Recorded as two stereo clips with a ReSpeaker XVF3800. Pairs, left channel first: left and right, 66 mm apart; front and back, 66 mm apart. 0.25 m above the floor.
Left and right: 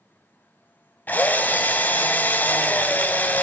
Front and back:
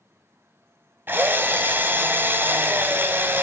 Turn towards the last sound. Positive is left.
turn(degrees=140)